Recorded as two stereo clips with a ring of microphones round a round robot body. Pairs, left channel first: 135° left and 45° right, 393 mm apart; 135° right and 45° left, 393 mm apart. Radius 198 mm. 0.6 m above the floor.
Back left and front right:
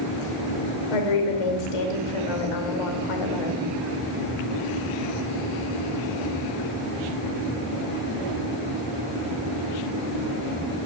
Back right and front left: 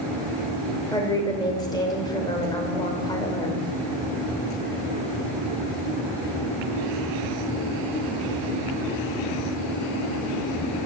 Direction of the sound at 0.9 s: 145° left.